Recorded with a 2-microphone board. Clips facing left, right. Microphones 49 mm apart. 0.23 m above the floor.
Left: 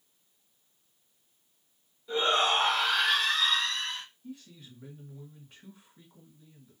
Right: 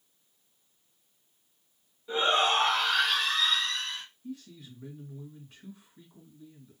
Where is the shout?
10° right (ahead or behind), 1.4 m; by 4.0 s 45° left (ahead or behind), 1.7 m.